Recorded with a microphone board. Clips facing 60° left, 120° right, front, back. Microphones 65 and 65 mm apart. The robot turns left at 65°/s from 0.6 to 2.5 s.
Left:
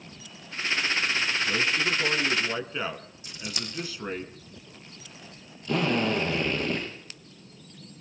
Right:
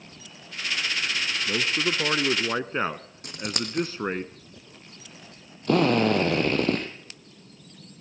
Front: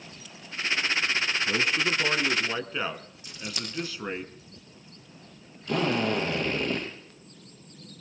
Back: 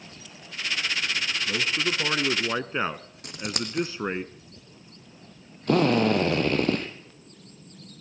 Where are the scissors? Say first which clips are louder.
Right 6 dB, back 6 dB; 150° right, 3.5 m.